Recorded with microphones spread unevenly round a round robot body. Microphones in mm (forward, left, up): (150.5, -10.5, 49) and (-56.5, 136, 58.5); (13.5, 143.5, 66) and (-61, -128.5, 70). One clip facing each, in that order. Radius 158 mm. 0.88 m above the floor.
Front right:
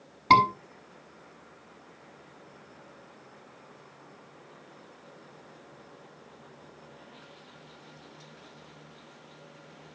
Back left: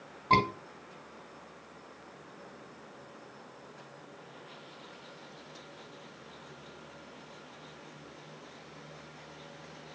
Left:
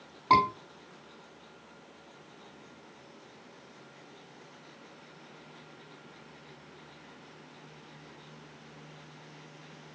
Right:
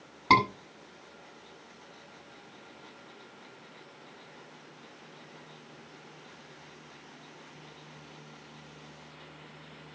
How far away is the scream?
About 7 m.